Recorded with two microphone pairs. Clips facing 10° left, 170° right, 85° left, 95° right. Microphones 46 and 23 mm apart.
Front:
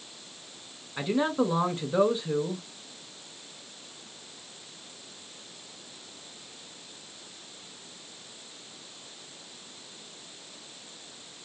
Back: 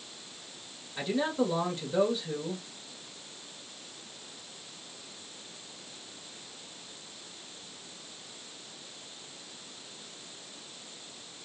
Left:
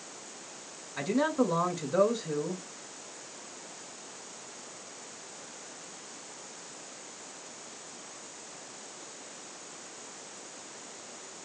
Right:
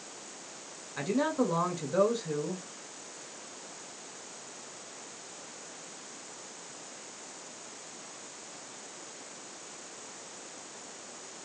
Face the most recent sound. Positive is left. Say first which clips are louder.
# front 3 dB, left 1 dB
turn(degrees=-5)